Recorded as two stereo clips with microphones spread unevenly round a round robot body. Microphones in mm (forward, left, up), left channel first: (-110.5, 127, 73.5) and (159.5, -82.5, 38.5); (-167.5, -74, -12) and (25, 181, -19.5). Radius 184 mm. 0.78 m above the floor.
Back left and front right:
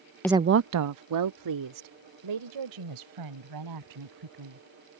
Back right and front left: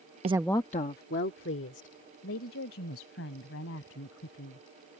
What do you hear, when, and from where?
0.2 s a woman speaking: 55° left; by 4.6 s 70° right